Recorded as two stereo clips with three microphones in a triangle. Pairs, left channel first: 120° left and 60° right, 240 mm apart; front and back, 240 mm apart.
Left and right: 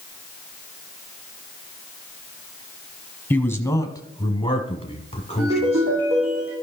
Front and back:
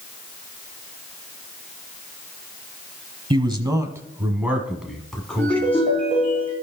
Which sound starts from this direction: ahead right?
A ringtone, at 5.4 s.